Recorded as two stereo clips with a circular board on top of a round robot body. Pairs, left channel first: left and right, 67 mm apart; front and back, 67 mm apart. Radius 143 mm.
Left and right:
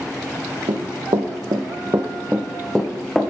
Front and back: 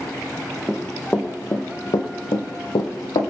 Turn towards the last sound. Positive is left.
turn(degrees=10)